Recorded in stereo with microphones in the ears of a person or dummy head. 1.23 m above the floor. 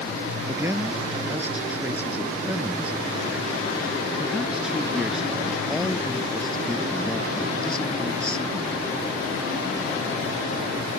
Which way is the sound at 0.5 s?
15° right (ahead or behind).